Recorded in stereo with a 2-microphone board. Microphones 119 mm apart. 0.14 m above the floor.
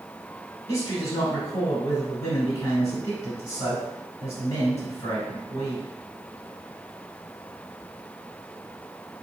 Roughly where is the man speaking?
Left.